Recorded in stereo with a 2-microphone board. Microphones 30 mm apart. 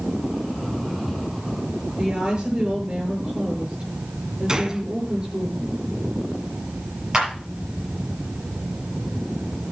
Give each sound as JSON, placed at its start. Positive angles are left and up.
{"t": 2.0, "sound": "a woman speaking", "side_deg": -35, "distance_m": 7.5}
{"t": 4.5, "sound": "a gunshot", "side_deg": -25, "distance_m": 1.1}
{"t": 7.1, "sound": "a clap", "side_deg": -20, "distance_m": 6.5}